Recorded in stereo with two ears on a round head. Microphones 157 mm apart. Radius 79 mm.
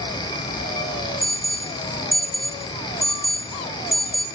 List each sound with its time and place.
1.2 s an alarm: centre (ahead or behind), 1.4 m